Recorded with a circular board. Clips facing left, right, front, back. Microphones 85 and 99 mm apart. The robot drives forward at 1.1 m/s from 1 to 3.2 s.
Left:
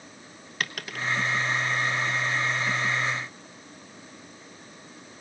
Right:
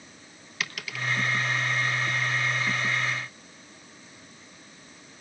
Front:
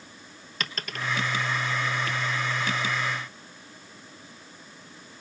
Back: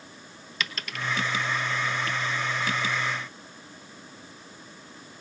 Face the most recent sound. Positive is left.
turn(degrees=160)